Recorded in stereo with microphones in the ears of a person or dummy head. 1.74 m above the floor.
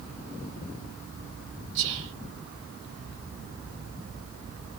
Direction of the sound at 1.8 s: 60° right (ahead or behind).